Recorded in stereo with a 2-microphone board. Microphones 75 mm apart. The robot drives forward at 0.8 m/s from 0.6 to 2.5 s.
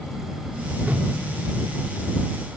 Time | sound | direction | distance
0.8 | a whoosh | 25° right (ahead or behind) | 1.5 m